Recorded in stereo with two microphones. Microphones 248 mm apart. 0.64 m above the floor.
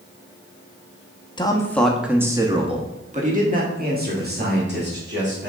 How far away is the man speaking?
About 0.9 m.